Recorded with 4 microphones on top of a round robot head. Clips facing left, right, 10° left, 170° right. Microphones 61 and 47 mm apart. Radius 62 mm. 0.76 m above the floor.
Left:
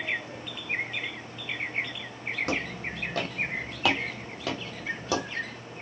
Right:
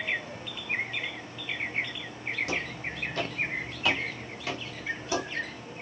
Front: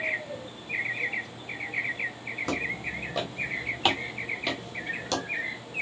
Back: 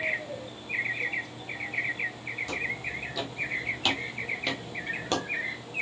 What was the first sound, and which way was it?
Footsteps, 50° left.